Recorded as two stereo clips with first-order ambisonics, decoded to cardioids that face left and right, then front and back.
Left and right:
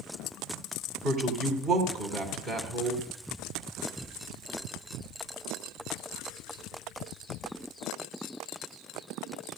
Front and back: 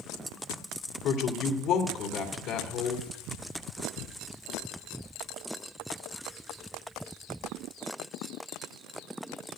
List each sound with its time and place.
1.0 s a woman speaking: 35° right, 2.5 m